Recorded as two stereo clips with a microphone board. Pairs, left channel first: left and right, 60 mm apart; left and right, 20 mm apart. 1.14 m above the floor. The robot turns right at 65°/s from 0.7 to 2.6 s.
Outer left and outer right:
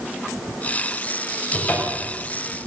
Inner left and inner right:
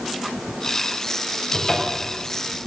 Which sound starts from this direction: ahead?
A cupboard door, at 1.5 s.